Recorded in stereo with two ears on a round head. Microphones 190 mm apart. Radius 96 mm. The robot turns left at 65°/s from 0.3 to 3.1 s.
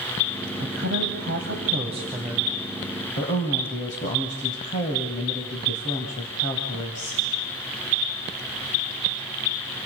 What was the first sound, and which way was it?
A woman speaking, 60° right.